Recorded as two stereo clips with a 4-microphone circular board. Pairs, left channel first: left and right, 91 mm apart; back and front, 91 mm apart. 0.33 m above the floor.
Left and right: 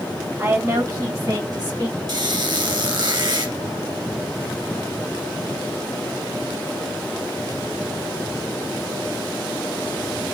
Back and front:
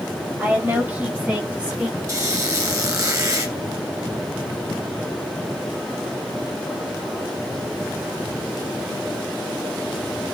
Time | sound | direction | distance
0.4 | a woman speaking | 50° right | 1.8 m
2.1 | a squeak | 55° right | 1.7 m